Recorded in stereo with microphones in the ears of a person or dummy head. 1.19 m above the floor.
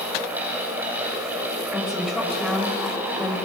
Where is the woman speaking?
Centre (ahead or behind), 5.5 m.